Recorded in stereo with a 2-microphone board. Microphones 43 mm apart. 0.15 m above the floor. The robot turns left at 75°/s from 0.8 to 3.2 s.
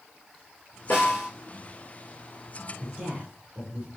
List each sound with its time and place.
0.9 s a snare drum: 55° left (ahead or behind), 3 m; by 1.3 s 30° left (ahead or behind), 3 m
2.8 s a woman speaking: 110° right, 2 m; by 3.9 s 140° right, 2 m